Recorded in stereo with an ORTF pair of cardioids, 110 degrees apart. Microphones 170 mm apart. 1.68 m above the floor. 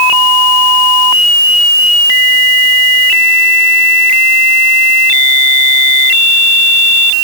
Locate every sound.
Only background noise.